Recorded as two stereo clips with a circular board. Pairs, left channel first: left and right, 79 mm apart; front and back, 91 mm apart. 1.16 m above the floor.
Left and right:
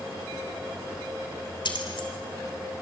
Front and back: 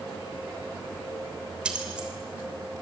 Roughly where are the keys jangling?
Left.